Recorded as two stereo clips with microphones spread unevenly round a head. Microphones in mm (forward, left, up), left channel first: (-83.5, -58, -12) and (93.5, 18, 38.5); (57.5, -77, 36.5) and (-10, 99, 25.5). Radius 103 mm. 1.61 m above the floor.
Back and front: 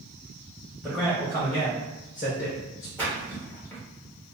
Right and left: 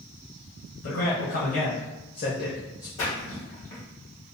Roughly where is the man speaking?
Right.